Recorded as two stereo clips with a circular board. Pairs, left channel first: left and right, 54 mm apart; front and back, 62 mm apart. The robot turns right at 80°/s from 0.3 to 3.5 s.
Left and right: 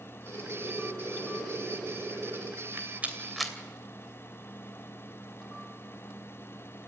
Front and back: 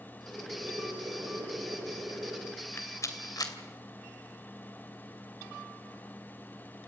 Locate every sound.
0.3 s boiling: 75° left, 9 m; by 2.5 s 110° right, 9 m
2.6 s a rattle: 65° right, 3 m; by 3.5 s 5° left, 3 m